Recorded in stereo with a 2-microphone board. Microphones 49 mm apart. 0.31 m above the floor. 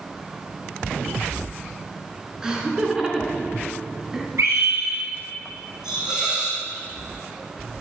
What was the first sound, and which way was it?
Laughter, 10° right (ahead or behind).